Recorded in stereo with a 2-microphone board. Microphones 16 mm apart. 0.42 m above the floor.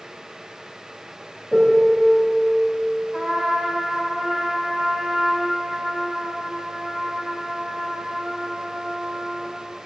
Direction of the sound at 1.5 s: 55° right (ahead or behind).